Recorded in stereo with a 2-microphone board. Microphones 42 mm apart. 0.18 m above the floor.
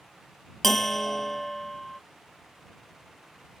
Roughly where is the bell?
Centre.